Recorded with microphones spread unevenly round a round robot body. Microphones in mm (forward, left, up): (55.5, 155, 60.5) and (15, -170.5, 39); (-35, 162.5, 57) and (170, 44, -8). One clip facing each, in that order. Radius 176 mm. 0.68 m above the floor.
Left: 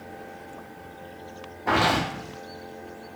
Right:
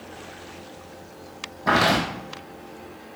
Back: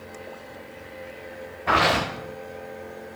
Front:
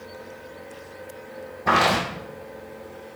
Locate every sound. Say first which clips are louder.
1.7 s footsteps: right 2 dB, front 1 dB; 45° right, 1.8 m